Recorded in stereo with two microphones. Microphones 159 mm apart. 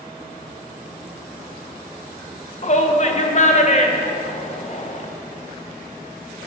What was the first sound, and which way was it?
A shout, 45° left (ahead or behind).